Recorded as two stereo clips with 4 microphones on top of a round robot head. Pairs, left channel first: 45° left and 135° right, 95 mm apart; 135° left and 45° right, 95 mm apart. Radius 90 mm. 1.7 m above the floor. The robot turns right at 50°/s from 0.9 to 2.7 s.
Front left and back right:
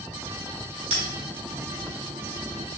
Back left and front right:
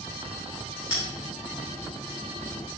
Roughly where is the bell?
Behind right.